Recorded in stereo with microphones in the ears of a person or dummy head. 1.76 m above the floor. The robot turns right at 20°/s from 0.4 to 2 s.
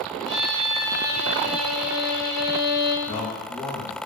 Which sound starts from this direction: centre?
A man speaking, at 3.1 s.